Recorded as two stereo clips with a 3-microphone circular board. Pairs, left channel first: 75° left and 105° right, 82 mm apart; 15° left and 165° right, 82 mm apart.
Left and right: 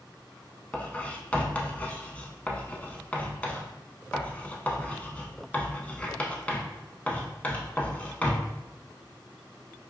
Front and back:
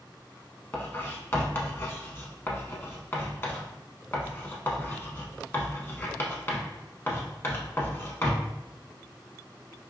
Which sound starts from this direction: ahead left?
Writing, at 0.7 s.